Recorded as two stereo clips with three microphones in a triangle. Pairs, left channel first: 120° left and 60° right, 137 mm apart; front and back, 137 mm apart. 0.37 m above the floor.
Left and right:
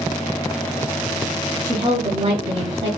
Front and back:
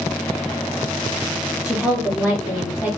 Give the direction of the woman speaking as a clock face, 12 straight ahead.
3 o'clock.